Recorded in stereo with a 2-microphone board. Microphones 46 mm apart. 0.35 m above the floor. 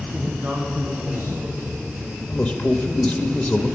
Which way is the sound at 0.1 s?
60° right (ahead or behind).